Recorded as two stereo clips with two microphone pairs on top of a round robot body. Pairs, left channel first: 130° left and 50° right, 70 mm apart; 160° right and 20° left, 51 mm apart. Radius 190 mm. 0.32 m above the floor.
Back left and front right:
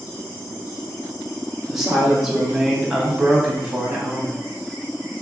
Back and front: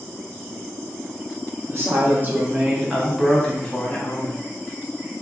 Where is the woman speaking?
50° left, 1.2 m; by 4.4 s 125° right, 1.1 m.